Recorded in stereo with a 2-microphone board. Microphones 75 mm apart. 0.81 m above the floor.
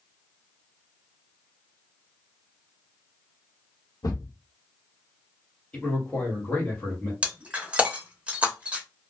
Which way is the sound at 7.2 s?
15° right (ahead or behind).